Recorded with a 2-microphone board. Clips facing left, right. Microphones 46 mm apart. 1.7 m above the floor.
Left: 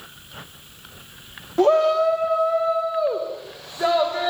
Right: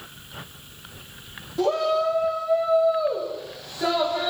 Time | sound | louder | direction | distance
1.6 | a shout | left 5 dB | 45° left (ahead or behind) | 3 m